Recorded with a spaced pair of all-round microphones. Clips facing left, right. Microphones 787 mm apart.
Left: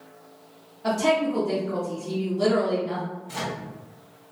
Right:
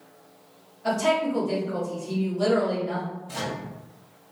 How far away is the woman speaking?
About 0.9 m.